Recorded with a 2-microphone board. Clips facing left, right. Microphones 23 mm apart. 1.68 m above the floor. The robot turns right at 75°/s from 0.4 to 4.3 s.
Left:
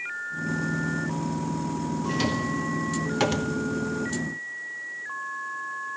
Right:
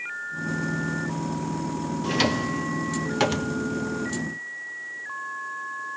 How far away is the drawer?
About 0.9 m.